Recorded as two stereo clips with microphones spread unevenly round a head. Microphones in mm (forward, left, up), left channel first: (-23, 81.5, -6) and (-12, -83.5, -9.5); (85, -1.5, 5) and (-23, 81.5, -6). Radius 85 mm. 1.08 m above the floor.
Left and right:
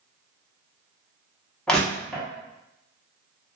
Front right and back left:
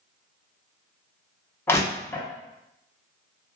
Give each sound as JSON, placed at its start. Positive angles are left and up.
{"t": 1.7, "sound": "crushing", "azimuth_deg": 15, "distance_m": 0.6}